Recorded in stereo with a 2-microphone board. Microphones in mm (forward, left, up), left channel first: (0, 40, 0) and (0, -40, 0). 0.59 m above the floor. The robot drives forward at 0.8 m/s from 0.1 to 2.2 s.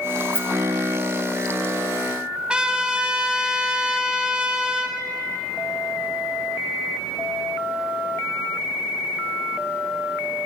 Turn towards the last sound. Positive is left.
turn(degrees=-10)  # may be behind; listen again after turning